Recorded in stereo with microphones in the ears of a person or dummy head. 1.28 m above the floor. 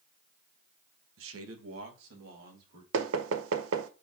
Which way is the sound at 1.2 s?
65° right (ahead or behind).